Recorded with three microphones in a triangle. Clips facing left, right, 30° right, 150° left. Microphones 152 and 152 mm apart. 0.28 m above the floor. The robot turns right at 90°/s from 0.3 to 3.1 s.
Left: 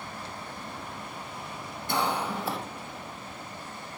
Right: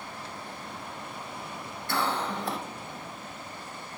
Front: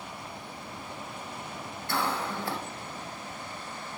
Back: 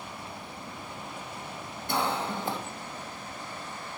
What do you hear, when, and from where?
1.9 s a cough: 120° left, 1.0 m; by 2.6 s straight behind, 1.0 m